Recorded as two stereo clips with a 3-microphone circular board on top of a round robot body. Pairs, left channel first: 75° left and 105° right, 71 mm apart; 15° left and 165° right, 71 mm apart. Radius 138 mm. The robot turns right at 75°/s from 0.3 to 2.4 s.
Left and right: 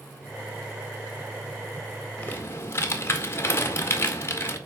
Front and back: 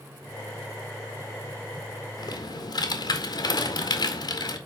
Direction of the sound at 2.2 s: Straight ahead.